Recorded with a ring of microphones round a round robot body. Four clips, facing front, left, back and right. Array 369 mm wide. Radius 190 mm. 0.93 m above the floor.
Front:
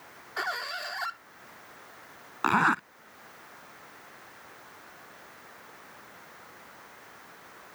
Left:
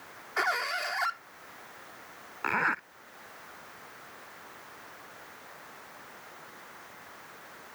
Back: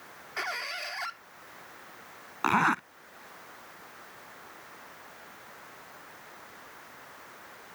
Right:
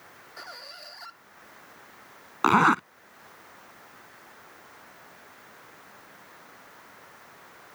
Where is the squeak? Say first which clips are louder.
Left 16 dB, front 3 dB; 80° left.